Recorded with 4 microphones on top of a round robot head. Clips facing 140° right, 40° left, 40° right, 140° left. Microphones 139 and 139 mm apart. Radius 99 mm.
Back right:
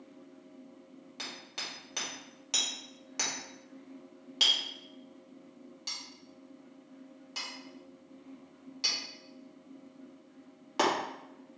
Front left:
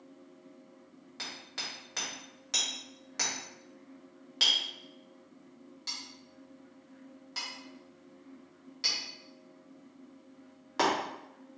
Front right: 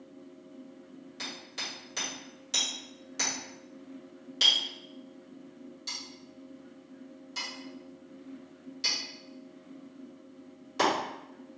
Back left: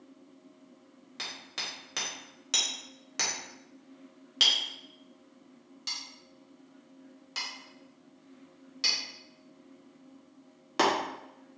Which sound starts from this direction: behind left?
Hammering, at 1.2 s.